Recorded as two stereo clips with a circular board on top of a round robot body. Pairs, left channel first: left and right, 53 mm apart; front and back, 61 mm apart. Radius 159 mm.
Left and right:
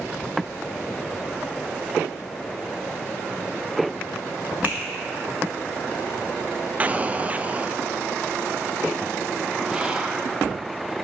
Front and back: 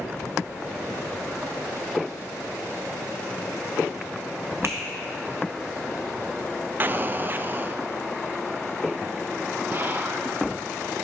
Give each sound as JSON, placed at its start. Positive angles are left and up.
{"t": 4.6, "sound": "a finger snap", "azimuth_deg": -145, "distance_m": 1.1}
{"t": 6.8, "sound": "an explosion", "azimuth_deg": -140, "distance_m": 0.5}
{"t": 9.7, "sound": "whispering", "azimuth_deg": -150, "distance_m": 0.8}